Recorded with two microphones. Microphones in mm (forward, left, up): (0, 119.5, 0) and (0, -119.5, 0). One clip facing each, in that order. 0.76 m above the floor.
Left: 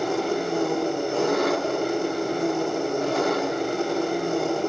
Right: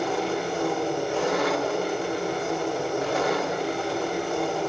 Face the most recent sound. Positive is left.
turn(degrees=45)  # may be behind; listen again after turning